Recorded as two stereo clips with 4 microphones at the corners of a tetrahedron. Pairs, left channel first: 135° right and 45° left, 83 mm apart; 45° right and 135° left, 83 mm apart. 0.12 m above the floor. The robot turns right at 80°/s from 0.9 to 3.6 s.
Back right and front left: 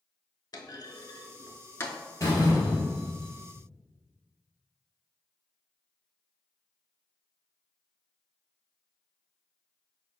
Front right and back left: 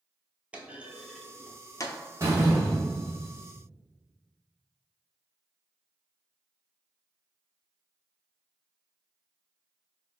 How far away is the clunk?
About 0.6 m.